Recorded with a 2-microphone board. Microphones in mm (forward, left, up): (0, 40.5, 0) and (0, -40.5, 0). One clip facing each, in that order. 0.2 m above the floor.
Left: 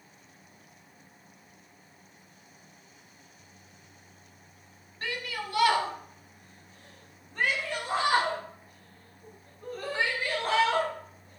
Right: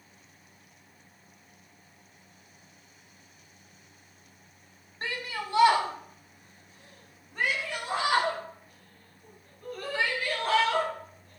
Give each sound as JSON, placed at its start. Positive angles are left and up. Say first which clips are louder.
{"t": 5.0, "sound": "a shout", "louder": "even", "side_deg": -35, "distance_m": 1.6}